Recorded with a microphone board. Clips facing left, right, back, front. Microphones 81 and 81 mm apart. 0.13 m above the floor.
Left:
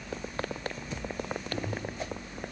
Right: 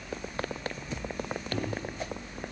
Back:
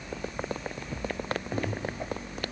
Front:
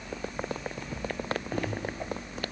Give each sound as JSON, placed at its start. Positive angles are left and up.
{"t": 1.5, "sound": "a microwave", "azimuth_deg": -115, "distance_m": 7.5}